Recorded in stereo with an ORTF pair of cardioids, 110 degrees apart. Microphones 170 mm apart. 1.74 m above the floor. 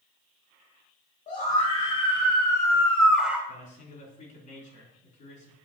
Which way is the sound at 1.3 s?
50° left.